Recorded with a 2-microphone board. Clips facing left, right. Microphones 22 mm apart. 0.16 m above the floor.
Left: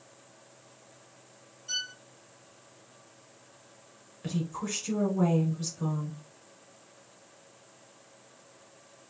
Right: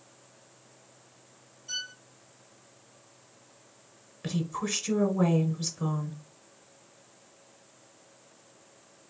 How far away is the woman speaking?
About 1.2 m.